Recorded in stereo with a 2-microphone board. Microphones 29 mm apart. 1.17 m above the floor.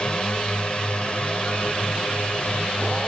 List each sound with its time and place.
0.0 s a drone: 40° left (ahead or behind); by 3.1 s 50° left (ahead or behind)